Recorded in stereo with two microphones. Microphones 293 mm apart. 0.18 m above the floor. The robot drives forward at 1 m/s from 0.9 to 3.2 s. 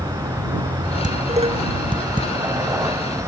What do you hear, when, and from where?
0.0 s a vehicle: 10° right (ahead or behind)
1.0 s dishes clattering: 25° right (ahead or behind); by 2.3 s 15° right (ahead or behind)